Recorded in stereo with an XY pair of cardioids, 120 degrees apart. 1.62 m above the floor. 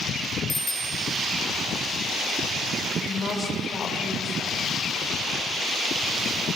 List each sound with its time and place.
0.5 s a bicycle bell: 20° left, 4.5 m
3.0 s a woman speaking: 40° left, 6.5 m